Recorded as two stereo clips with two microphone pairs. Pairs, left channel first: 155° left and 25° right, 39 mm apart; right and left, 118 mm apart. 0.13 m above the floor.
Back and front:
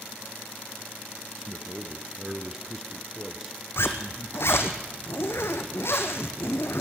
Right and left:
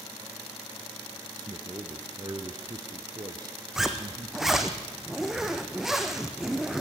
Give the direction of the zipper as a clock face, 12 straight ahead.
6 o'clock.